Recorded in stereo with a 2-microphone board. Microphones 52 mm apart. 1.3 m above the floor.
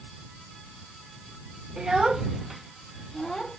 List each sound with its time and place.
1.8 s a child speaking: 15° right (ahead or behind); by 3.6 s 5° left (ahead or behind)